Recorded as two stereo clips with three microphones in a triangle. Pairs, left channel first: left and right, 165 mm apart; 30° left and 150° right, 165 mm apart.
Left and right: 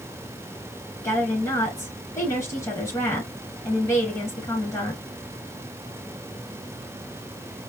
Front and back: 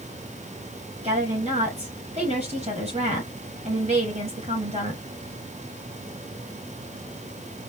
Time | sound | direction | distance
1.0 | a woman speaking | 160° left | 3.5 m